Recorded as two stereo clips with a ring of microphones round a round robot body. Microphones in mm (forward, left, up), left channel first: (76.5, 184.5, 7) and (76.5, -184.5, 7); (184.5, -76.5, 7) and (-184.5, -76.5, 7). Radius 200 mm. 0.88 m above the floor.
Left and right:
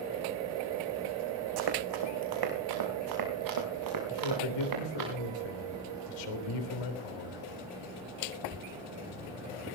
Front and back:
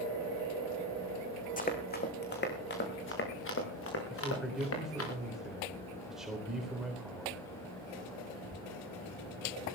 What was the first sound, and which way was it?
Running footsteps, 70° right.